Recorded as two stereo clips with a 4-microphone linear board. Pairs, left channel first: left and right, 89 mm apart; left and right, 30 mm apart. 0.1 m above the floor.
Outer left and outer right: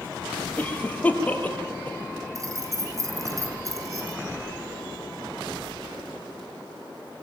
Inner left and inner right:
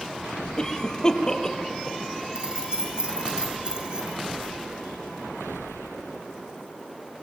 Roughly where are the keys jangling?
Right.